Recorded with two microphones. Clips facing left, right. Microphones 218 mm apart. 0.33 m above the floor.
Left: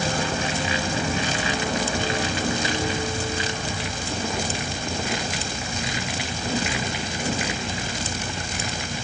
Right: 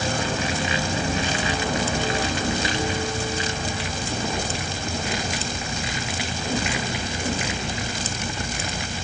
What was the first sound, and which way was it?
Only background noise.